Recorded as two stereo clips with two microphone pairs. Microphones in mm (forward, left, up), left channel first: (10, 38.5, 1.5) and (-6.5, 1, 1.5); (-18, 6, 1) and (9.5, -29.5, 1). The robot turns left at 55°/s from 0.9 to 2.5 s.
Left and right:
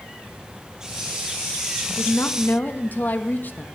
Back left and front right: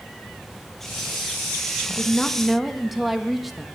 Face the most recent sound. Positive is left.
turn(degrees=35)